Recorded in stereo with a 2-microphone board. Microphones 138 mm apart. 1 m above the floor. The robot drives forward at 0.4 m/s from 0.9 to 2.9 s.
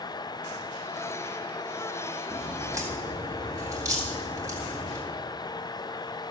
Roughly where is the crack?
Right.